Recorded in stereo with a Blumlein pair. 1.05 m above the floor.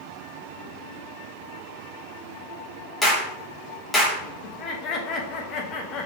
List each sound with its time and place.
3.0 s a clap: 10° left, 1.4 m
4.4 s laughter: 30° left, 1.0 m